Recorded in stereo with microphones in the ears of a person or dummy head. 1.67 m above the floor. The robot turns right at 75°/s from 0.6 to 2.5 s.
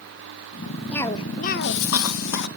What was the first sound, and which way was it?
A cough, 5° left.